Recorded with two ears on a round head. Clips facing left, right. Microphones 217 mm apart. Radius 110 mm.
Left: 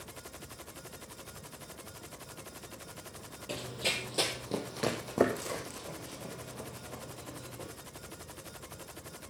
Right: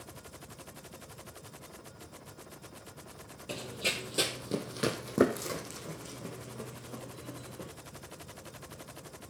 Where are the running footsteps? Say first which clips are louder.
Even; 5° right (ahead or behind), 1.2 m; by 7.7 s 25° right (ahead or behind), 3.5 m.